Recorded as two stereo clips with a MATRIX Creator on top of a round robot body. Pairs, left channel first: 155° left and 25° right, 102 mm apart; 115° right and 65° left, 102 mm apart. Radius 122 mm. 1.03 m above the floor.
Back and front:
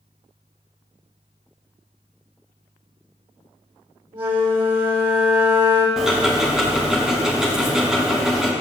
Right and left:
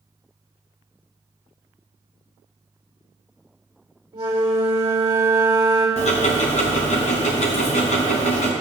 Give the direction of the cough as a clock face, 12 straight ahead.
No cough in this recording.